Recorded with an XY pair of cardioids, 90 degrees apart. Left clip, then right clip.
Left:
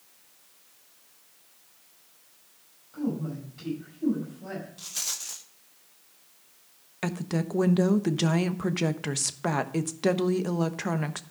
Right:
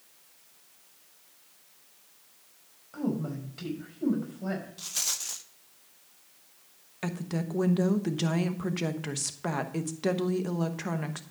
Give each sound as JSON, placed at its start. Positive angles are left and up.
{"t": 2.9, "sound": "a woman speaking", "azimuth_deg": -60, "distance_m": 5.5}
{"t": 4.8, "sound": "a rattle", "azimuth_deg": -20, "distance_m": 0.9}
{"t": 7.0, "sound": "a woman speaking", "azimuth_deg": 30, "distance_m": 1.0}